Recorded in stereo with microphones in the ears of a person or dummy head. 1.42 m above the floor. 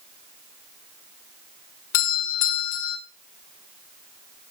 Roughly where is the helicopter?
I don't hear a helicopter.